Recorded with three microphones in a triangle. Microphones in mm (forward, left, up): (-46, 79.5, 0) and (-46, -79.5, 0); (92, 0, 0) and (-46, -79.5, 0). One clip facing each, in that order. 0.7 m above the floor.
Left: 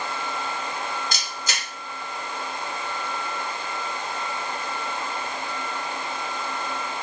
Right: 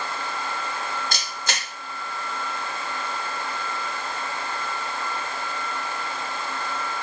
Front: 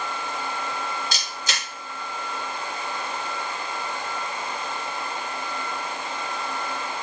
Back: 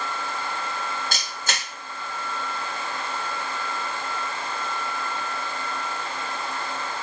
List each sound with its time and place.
1.1 s a camera shutter: 115° right, 1.2 m